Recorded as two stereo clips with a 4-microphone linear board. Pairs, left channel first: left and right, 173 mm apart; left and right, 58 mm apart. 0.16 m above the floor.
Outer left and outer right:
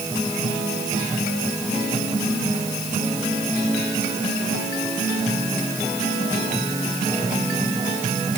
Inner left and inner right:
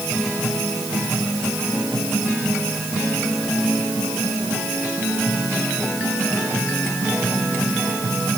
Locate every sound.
Only background noise.